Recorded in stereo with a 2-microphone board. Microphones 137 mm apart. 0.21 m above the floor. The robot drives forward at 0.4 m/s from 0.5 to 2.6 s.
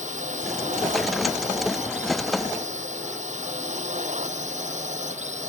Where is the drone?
65° right (ahead or behind); by 5.5 s 60° right (ahead or behind).